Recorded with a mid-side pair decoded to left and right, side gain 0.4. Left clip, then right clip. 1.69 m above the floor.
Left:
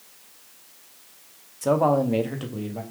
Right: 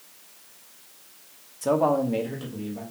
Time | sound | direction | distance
1.6 | a man speaking | 10° left | 0.8 m